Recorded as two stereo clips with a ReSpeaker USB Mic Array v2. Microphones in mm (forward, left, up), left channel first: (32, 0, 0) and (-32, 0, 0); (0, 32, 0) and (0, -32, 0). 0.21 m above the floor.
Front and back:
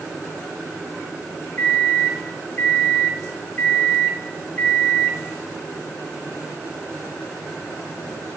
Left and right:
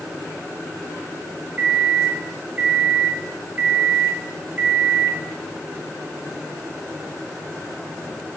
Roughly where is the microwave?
Ahead right.